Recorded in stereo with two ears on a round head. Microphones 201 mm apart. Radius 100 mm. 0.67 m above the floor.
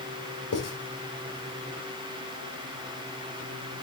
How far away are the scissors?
No scissors in this recording.